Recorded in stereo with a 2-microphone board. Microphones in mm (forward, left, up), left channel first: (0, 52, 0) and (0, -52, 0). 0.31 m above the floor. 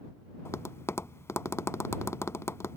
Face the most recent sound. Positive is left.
turn(degrees=25)  # may be behind; listen again after turning